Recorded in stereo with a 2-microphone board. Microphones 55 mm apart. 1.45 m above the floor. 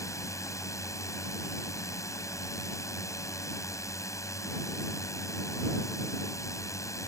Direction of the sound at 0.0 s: 75° left (ahead or behind).